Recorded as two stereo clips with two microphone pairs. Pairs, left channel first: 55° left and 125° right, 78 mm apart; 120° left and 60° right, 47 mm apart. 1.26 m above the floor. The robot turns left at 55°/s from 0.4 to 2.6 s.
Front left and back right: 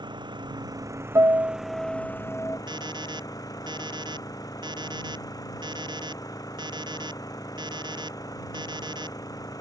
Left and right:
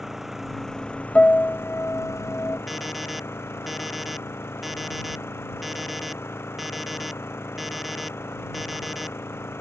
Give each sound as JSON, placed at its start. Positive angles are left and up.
{"t": 0.0, "sound": "an engine running", "azimuth_deg": -145}
{"t": 1.1, "sound": "a piano", "azimuth_deg": -175}
{"t": 2.7, "sound": "an alarm clock", "azimuth_deg": -150}